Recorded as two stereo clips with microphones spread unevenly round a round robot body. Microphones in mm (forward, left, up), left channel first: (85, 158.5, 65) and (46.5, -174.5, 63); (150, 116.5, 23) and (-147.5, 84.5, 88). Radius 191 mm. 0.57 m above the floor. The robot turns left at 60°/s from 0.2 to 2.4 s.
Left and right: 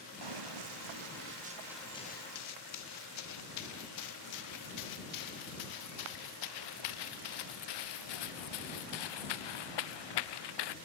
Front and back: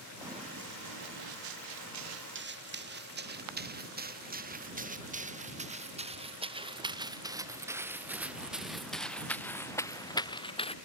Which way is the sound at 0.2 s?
90° right.